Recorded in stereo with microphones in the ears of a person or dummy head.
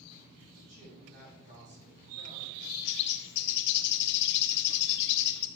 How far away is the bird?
About 0.9 m.